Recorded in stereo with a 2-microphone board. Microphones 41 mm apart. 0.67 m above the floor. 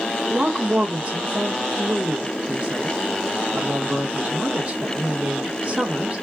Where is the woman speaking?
30° right (ahead or behind), 1.2 m.